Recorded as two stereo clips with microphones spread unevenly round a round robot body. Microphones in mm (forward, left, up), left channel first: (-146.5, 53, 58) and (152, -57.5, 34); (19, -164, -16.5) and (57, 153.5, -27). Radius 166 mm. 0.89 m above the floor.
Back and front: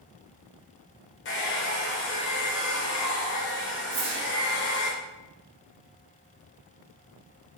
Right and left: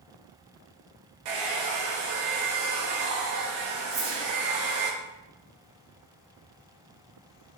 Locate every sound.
1.2 s a hair dryer: 105° left, 0.6 m
3.9 s a whoosh: 35° left, 0.7 m